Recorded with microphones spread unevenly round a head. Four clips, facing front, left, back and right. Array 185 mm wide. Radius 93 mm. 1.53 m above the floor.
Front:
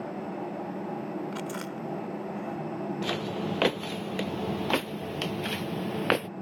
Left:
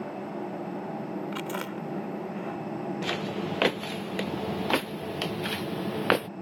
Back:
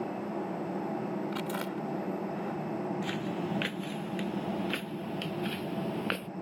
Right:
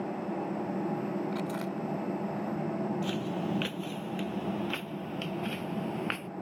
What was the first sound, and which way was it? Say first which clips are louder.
Chewing: even, even; 100° left.